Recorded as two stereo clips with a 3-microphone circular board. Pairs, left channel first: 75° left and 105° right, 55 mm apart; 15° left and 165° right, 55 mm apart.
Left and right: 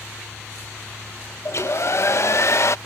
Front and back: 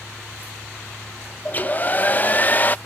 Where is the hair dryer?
65° left.